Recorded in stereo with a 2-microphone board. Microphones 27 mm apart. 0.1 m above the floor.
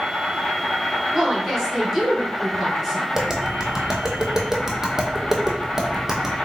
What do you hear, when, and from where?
0.0 s an insect: 45° left (ahead or behind), 0.9 m
1.1 s a woman speaking: 10° right (ahead or behind), 1.5 m
3.1 s tapping: 15° right (ahead or behind), 0.8 m